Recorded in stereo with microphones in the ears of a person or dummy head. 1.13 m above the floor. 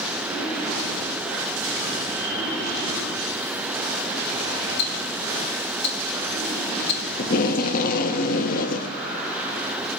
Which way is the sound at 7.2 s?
45° left (ahead or behind).